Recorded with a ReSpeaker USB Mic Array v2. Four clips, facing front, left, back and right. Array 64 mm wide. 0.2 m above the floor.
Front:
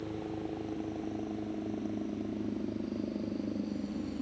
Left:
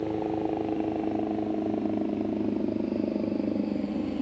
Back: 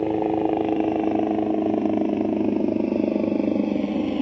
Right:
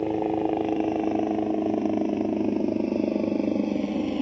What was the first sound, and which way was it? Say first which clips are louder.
A helicopter: right 4 dB, back 17 dB; 160° right.